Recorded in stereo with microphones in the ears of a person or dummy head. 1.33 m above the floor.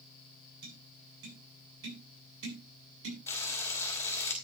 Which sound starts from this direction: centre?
Frying, at 3.3 s.